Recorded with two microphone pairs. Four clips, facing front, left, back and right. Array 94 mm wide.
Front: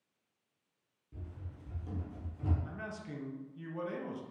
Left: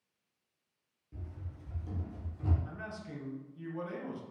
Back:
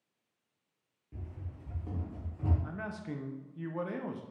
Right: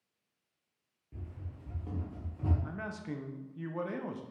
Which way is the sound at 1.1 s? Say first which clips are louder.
Right 1 dB, back 2 dB; 155° right.